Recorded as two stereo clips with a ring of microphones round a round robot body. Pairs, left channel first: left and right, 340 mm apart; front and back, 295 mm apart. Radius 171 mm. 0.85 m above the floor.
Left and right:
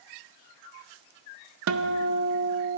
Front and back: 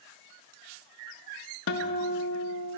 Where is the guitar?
45° right, 0.7 m.